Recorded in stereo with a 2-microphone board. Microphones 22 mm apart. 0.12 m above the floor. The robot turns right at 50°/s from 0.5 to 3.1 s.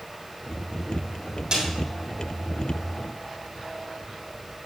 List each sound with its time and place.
1.5 s a snare drum: 30° right (ahead or behind), 6.5 m; by 1.6 s 25° right (ahead or behind), 6.5 m